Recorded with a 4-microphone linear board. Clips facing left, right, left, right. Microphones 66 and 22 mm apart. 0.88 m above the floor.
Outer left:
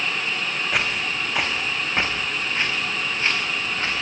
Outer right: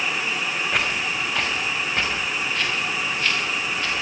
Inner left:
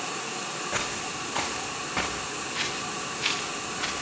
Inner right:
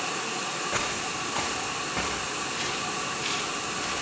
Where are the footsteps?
Centre (ahead or behind), 4.5 m; by 4.0 s 30° left (ahead or behind), 8 m.